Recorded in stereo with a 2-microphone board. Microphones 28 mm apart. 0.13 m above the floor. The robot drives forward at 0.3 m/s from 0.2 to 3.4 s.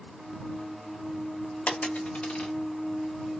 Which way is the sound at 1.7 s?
45° left (ahead or behind).